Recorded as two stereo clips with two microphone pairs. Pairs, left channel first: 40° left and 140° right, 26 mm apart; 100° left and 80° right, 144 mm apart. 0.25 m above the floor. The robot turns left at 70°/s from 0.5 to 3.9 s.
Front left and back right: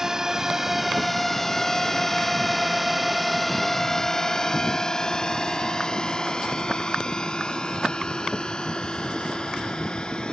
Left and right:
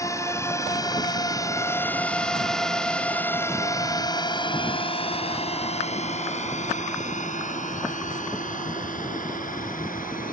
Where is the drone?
155° left; by 10.3 s 90° left.